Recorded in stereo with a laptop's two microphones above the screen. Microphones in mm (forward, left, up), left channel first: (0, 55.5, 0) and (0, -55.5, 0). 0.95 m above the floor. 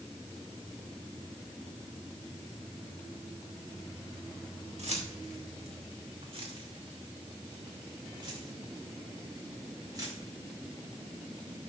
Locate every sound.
4.8 s keys jangling: 75° right (ahead or behind), 2.5 m; by 10.2 s 35° right (ahead or behind), 5 m